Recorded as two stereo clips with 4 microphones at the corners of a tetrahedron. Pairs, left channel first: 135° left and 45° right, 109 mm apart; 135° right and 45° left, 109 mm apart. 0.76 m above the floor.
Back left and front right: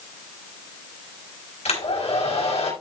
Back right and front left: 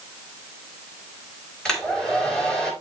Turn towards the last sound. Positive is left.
turn(degrees=140)